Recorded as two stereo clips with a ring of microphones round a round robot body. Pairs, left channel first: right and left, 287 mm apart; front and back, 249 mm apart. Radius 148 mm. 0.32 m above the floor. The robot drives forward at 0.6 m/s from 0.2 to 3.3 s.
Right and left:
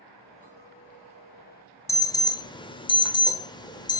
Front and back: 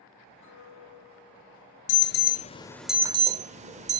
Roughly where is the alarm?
Ahead.